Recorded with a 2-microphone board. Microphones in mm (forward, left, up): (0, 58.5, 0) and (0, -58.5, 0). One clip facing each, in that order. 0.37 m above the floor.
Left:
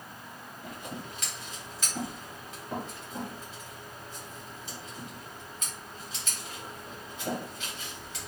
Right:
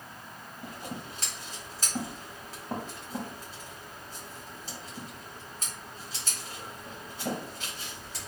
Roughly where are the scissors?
Right.